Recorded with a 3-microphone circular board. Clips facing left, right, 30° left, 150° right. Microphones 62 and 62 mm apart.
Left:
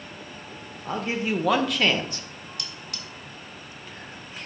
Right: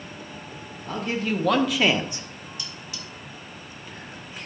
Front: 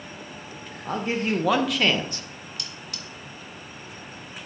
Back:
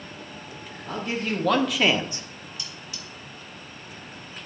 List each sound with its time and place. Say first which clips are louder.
0.8 s a man speaking: even, front 3 dB; 50° left, 1.0 m; by 2.3 s 125° right, 1.0 m
2.6 s cutlery clinking: even, front 1 dB; 60° left, 1.5 m